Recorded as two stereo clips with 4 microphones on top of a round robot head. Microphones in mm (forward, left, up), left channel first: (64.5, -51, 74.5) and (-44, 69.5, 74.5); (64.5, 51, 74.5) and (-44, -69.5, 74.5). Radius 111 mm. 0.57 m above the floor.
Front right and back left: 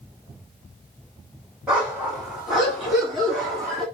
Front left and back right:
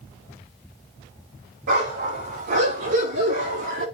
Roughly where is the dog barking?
Behind right.